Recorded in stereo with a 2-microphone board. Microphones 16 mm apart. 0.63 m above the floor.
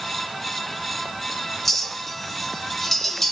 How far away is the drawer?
No drawer in this recording.